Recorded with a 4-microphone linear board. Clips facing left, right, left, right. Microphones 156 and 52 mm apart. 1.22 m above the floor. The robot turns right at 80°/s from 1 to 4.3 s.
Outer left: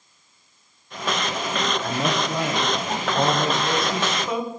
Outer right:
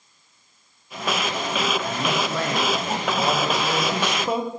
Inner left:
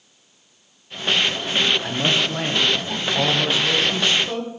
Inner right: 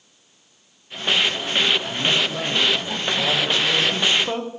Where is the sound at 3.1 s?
125° left, 1.0 m; by 4.5 s 145° right, 1.0 m.